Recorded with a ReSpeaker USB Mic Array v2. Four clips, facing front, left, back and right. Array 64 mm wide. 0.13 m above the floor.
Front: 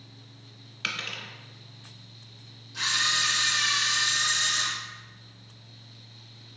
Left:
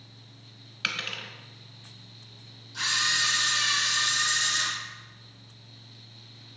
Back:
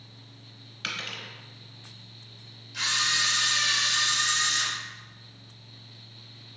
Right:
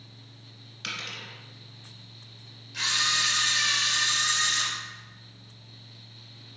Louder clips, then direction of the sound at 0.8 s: Left 4 dB, front 1 dB; 85° left.